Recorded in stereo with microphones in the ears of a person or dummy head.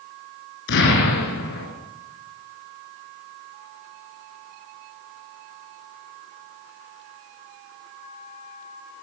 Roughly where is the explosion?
Left.